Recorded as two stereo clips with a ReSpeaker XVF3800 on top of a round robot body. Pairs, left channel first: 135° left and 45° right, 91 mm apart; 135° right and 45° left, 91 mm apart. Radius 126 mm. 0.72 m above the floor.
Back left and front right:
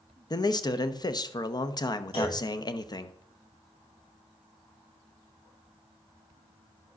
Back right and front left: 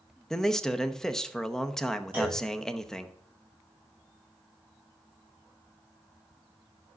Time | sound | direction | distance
0.3 | a man speaking | 145° left | 0.8 m
2.1 | a clunk | 120° left | 6 m